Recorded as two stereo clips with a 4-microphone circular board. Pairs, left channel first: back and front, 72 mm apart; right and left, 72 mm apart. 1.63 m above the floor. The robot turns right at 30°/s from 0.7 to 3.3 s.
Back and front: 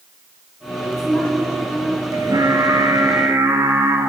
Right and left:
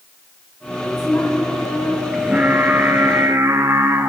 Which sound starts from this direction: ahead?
Singing, at 2.1 s.